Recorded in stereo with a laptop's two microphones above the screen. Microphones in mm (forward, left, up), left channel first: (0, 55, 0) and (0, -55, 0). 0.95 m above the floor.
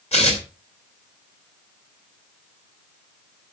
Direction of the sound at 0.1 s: 80° left.